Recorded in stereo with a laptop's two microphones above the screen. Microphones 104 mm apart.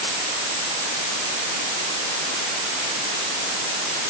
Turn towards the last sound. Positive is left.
No sound to turn to.